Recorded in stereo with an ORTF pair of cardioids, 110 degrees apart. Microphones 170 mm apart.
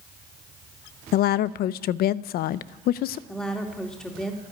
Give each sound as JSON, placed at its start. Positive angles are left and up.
{"t": 1.1, "sound": "a woman speaking", "azimuth_deg": 65, "distance_m": 0.6}
{"t": 3.3, "sound": "a woman speaking", "azimuth_deg": 5, "distance_m": 2.5}